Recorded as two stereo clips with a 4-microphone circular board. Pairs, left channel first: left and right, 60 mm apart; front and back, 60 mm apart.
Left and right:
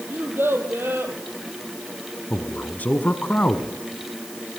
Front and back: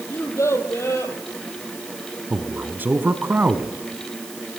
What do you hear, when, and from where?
0.1 s a child speaking: 40° right, 3.5 m
2.3 s a man speaking: 140° left, 1.4 m